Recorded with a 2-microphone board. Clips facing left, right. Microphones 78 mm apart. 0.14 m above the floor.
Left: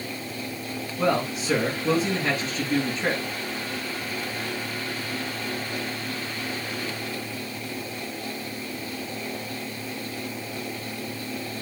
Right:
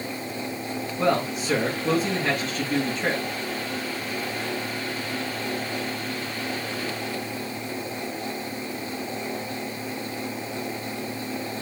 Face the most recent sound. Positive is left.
turn(degrees=0)  # may be behind; listen again after turning